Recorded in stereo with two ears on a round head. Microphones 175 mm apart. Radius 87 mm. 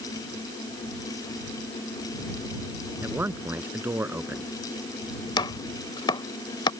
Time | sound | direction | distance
3.0 | a man speaking | 10° right (ahead or behind) | ?
5.4 | chopping | 25° left (ahead or behind) | ?